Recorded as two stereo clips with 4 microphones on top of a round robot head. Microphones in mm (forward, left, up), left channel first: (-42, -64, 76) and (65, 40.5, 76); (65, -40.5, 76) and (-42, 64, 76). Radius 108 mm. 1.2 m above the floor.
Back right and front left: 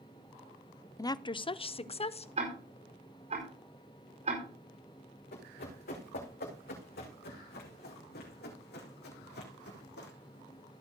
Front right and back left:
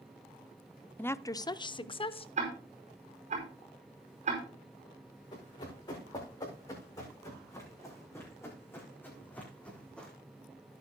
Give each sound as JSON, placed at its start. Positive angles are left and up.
{"t": 1.0, "sound": "a woman speaking", "azimuth_deg": -105, "distance_m": 0.5}
{"t": 2.4, "sound": "ticking", "azimuth_deg": 95, "distance_m": 5.0}
{"t": 5.3, "sound": "running footsteps", "azimuth_deg": -110, "distance_m": 5.5}